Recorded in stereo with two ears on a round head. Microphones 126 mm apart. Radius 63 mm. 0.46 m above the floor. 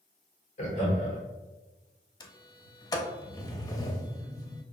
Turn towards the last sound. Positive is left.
turn(degrees=25)  # may be behind; listen again after turning